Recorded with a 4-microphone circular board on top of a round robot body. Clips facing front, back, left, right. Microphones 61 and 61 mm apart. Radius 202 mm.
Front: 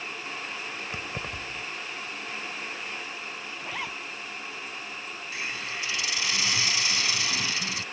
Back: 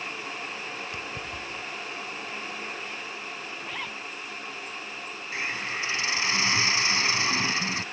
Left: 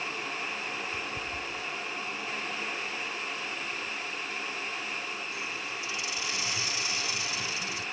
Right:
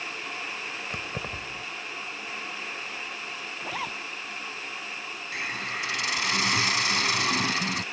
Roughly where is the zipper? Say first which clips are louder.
Front 3 dB, right 3 dB; right.